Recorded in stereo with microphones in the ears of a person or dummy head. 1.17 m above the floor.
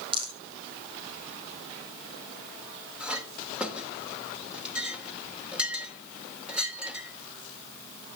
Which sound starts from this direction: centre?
A clink, at 3.0 s.